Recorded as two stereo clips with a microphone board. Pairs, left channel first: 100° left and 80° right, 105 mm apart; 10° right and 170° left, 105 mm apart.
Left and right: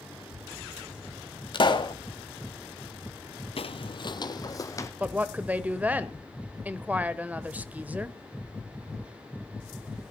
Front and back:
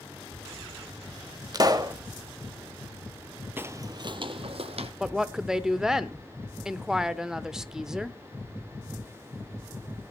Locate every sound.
0.1 s a child speaking: 75° left, 1.5 m; by 1.4 s 70° left, 3 m
1.5 s a pop: 125° left, 1.2 m
3.6 s footsteps: 105° left, 0.5 m; by 4.9 s 160° left, 1.1 m
5.0 s a woman speaking: 115° right, 0.8 m